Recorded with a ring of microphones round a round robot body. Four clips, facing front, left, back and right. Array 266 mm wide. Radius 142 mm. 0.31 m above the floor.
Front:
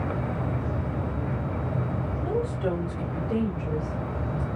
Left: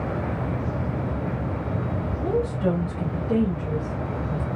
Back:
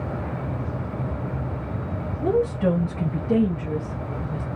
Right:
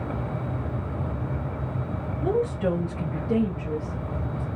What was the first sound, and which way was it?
A woman speaking, 170° right.